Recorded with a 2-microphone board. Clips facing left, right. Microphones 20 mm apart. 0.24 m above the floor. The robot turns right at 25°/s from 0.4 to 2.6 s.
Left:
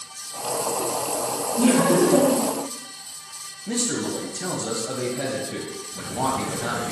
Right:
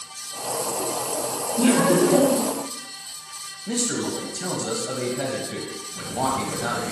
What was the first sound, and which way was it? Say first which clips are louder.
Laughter: even; 55° right (ahead or behind).